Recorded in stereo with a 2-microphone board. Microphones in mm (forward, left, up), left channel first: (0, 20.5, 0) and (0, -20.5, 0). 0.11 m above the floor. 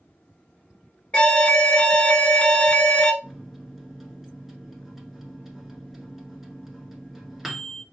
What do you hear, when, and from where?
1.1 s an alarm: 20° left (ahead or behind), 0.9 m
3.2 s a microwave: 5° right (ahead or behind), 1.2 m